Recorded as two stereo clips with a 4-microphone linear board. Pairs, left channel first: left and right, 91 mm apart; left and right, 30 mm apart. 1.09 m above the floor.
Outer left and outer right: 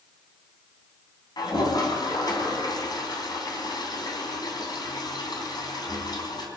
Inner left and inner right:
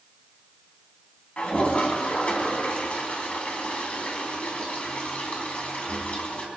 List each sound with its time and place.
1.4 s a toilet flushing: 50° left (ahead or behind), 3 m